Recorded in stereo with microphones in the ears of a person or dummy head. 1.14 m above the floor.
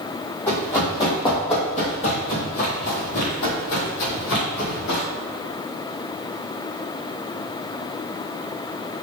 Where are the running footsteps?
10° left (ahead or behind), 1.7 m; by 5.0 s 60° left (ahead or behind), 2.5 m.